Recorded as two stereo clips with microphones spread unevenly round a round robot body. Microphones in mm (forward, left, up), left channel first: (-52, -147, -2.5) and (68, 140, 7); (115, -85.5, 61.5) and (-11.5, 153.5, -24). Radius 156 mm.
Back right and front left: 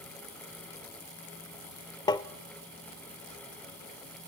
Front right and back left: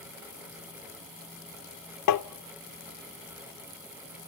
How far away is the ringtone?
I don't hear a ringtone.